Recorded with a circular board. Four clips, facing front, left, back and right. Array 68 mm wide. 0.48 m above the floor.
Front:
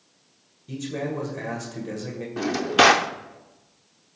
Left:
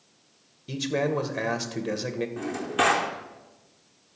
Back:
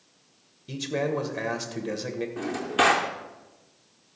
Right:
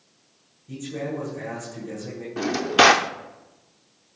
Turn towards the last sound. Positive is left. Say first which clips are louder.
# right 9 dB, front 6 dB
turn(degrees=-55)